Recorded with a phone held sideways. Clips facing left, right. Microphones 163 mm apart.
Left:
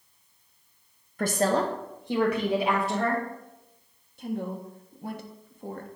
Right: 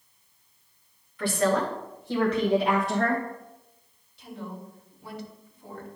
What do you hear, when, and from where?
1.2 s a woman speaking: 45° left (ahead or behind), 0.8 m; by 3.2 s centre (ahead or behind), 1.7 m
4.2 s a woman speaking: 50° left (ahead or behind), 1.2 m